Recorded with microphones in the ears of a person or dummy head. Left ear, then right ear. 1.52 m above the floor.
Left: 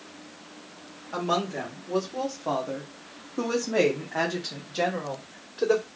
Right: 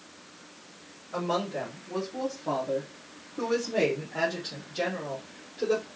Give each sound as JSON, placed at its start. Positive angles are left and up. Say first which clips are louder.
{"t": 1.1, "sound": "a woman speaking", "louder": "left 2 dB", "side_deg": 50, "distance_m": 1.9}